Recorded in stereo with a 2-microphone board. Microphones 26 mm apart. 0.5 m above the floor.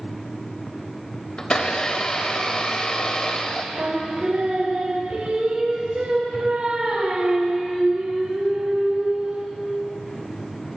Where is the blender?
30° left (ahead or behind), 1.0 m.